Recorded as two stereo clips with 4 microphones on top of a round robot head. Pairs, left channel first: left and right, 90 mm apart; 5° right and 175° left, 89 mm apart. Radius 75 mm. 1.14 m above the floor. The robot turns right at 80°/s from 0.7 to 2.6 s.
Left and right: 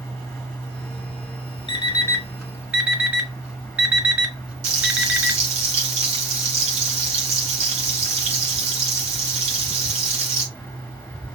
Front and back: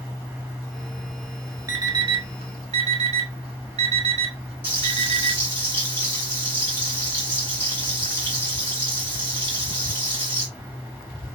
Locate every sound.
1.7 s an alarm clock: 120° left, 1.5 m; by 5.4 s 165° right, 1.5 m
4.6 s frying: 80° right, 2.0 m